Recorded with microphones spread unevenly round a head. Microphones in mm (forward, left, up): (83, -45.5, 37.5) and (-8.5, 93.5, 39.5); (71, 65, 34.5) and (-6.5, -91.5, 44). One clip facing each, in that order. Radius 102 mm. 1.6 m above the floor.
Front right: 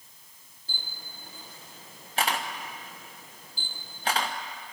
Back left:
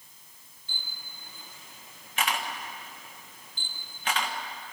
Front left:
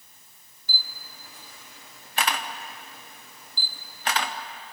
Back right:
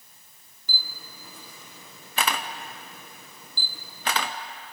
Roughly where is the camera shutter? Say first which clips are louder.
Front right 3 dB, back right 1 dB; behind right.